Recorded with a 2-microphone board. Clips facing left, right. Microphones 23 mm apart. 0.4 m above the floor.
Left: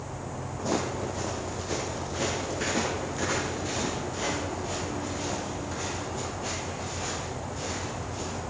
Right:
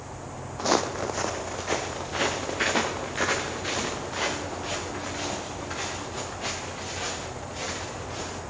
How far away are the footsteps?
About 0.6 m.